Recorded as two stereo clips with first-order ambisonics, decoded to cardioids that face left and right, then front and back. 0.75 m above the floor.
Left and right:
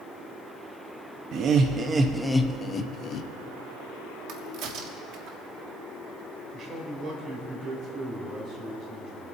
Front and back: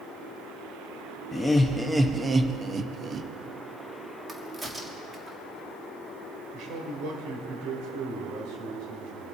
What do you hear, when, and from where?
1.3 s laughter: 80° right, 0.7 m; by 3.3 s 120° left, 0.8 m
4.3 s a crack: 105° right, 1.4 m
6.5 s a man speaking: 145° right, 3 m